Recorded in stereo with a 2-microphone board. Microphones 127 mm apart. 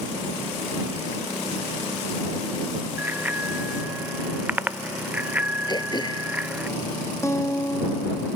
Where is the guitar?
20° left (ahead or behind).